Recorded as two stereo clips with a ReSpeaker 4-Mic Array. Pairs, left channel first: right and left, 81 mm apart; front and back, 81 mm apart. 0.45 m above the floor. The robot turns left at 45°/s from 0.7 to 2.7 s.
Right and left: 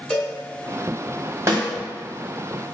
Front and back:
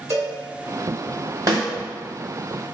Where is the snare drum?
140° left, 1.6 m; by 1.7 s 130° left, 1.6 m.